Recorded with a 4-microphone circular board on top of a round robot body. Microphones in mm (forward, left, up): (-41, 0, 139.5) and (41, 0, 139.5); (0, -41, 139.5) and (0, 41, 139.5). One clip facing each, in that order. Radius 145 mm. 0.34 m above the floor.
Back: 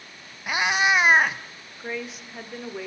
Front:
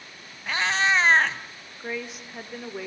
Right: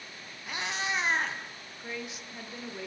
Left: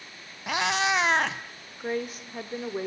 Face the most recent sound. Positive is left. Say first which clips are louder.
# even, left 9 dB
turn(degrees=90)